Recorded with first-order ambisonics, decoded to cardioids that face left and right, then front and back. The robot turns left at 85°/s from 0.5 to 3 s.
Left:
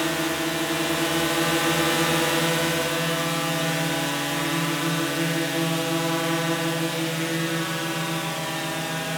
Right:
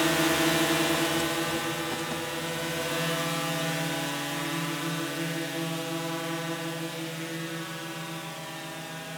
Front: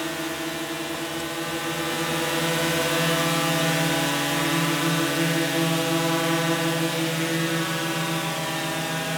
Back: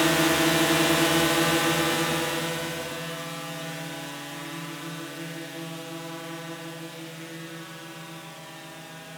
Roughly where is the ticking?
No ticking in this recording.